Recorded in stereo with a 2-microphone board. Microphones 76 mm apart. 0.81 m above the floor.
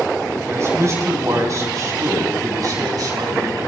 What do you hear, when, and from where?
0.5 s a man speaking: 40° right (ahead or behind), 5 m; by 3.7 s 55° right (ahead or behind), 6 m